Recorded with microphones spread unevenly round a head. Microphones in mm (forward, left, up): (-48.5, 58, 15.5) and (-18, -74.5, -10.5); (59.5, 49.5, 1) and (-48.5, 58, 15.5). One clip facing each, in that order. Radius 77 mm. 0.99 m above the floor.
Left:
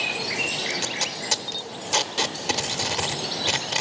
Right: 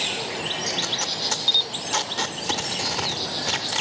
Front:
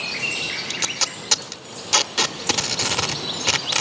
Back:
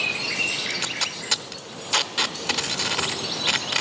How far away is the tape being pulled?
About 0.7 m.